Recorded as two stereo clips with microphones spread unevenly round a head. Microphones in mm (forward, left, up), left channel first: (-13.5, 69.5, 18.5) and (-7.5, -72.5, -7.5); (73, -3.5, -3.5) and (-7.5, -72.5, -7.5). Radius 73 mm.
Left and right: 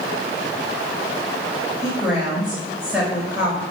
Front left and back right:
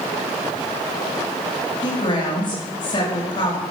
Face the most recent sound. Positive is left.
turn(degrees=5)